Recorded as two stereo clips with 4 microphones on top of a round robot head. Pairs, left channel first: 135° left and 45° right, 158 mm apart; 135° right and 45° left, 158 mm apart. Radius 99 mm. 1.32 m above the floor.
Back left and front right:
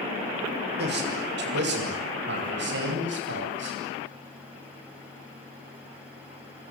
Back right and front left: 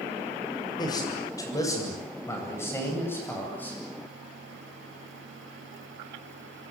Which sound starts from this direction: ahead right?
A man speaking, at 0.8 s.